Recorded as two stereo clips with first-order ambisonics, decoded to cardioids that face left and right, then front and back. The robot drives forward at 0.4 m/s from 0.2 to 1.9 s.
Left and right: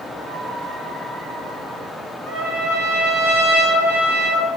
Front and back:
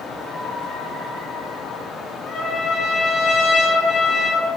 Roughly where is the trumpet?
Ahead left.